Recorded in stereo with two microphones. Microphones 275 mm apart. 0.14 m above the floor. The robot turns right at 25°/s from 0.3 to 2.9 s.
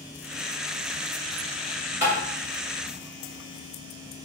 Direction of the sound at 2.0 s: 40° left (ahead or behind).